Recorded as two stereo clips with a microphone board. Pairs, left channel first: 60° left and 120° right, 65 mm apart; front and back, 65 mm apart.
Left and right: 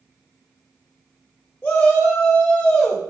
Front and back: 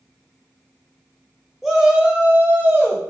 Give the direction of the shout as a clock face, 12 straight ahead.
9 o'clock.